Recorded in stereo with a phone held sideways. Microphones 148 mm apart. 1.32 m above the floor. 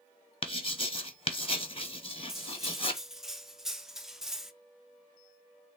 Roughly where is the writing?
Left.